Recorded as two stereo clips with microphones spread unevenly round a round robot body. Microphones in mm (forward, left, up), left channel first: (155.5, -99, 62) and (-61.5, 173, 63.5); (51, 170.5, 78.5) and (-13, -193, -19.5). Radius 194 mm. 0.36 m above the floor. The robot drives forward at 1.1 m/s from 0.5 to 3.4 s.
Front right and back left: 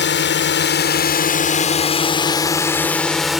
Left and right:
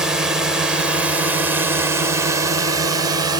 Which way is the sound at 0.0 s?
40° right.